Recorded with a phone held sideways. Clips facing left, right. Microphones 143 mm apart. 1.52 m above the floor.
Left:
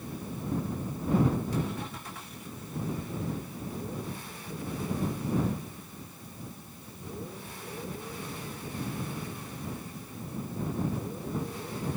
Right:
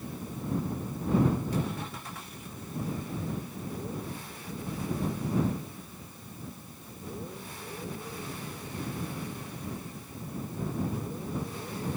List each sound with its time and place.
Only background noise.